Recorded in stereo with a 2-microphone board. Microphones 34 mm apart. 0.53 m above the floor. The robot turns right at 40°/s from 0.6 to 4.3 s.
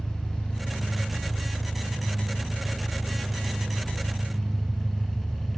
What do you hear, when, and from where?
0.0 s an engine running: 130° left, 6 m; by 5.6 s 80° right, 6 m